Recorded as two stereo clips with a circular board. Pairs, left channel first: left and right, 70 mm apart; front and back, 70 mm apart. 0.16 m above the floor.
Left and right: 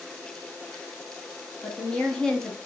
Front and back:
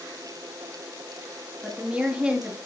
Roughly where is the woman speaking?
Behind left.